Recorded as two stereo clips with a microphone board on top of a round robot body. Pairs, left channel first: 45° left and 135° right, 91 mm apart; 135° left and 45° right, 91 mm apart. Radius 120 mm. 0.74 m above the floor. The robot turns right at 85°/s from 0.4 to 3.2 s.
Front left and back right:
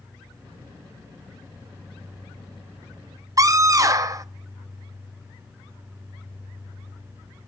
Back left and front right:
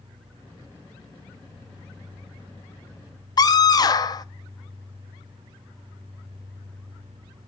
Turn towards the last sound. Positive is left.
turn(degrees=175)